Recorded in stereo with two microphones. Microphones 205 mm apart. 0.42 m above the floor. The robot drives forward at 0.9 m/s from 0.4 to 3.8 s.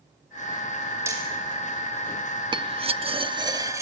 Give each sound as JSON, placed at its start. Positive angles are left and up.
{"t": 1.1, "sound": "hammering", "side_deg": -10, "distance_m": 4.0}
{"t": 2.5, "sound": "cutlery clinking", "side_deg": -25, "distance_m": 0.6}